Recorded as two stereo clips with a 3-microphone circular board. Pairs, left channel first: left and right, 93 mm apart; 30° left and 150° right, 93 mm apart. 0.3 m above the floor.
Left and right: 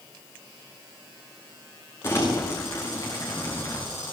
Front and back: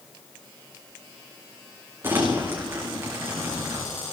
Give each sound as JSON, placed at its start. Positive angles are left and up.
{"t": 2.0, "sound": "crumpling", "azimuth_deg": 150, "distance_m": 5.5}